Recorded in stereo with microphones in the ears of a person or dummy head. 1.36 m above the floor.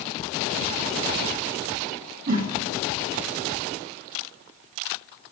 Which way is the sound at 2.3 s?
40° right (ahead or behind).